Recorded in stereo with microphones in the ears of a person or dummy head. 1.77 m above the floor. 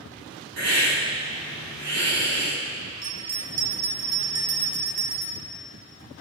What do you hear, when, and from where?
0.6 s a hiss: 70° right (ahead or behind), 3 m
3.0 s a bell: 45° right (ahead or behind), 0.9 m